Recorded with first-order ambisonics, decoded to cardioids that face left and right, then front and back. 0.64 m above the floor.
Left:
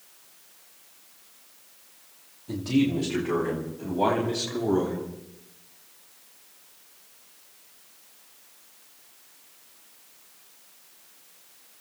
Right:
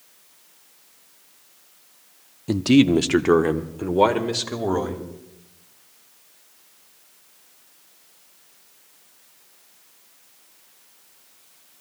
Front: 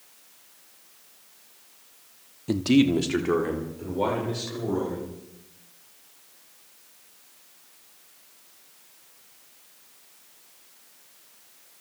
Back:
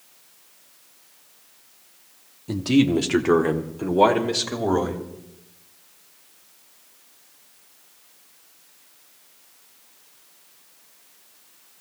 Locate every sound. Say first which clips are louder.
2.5 s a man speaking: right 8 dB, back 1 dB; 70° right, 0.8 m; by 5.0 s 135° right, 2.5 m